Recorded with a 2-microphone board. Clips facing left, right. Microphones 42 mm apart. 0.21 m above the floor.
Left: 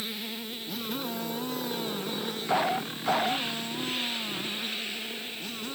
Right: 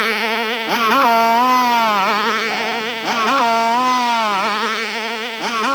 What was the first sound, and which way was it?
A motorcycle, 80° right.